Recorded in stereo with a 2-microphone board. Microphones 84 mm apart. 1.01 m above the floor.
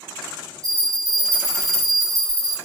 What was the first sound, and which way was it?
A bell, 40° right (ahead or behind).